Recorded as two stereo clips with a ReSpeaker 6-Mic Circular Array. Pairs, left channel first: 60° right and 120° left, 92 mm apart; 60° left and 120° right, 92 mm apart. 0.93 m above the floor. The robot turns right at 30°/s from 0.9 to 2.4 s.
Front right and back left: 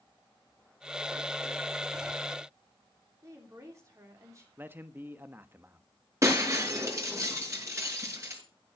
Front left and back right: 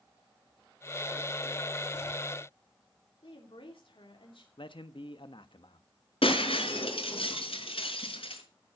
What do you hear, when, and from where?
3.2 s a woman speaking: 65° left, 3 m
4.6 s a man speaking: 55° left, 1.3 m
6.2 s breaking glass: 60° left, 5 m